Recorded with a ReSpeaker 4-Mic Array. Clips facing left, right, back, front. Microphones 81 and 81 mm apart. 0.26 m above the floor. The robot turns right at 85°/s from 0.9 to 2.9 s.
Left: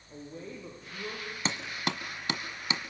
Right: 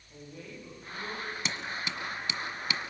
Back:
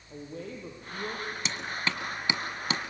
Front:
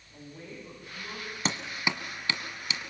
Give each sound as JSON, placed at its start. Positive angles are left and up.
{"t": 0.1, "sound": "a woman speaking", "azimuth_deg": 150, "distance_m": 7.0}
{"t": 1.4, "sound": "hammering", "azimuth_deg": 40, "distance_m": 1.4}